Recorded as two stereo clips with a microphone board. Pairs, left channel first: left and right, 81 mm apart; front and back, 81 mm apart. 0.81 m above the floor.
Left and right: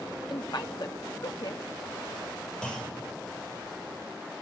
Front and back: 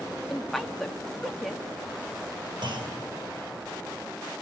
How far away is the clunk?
About 3.5 m.